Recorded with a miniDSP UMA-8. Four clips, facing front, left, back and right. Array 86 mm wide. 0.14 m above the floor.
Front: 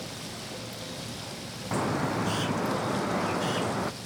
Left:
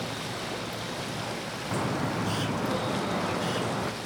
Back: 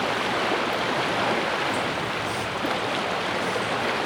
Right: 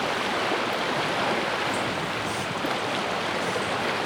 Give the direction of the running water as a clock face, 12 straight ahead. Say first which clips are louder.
Right 9 dB, back 16 dB; 5 o'clock.